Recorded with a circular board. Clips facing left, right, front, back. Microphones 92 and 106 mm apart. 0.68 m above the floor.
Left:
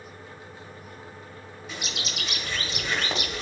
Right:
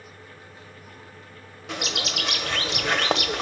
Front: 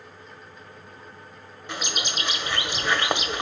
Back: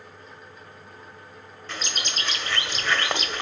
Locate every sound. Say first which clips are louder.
1.7 s a bird: right 6 dB, front 2 dB; 75° right, 1.3 m